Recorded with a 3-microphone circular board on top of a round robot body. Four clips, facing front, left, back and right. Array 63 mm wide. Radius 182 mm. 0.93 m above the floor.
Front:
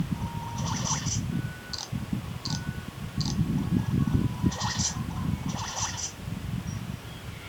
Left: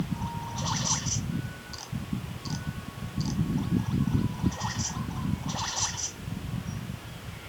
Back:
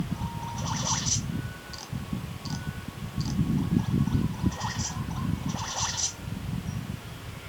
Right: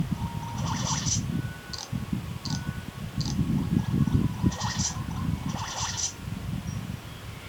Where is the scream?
No scream in this recording.